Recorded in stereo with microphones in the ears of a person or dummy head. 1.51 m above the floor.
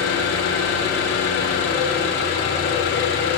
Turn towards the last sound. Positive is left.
turn(degrees=60)  # may be behind; listen again after turning